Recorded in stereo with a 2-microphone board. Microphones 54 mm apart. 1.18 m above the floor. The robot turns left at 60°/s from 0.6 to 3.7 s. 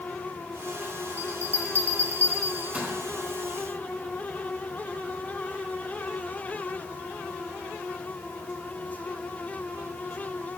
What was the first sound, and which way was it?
A bell, 45° right (ahead or behind).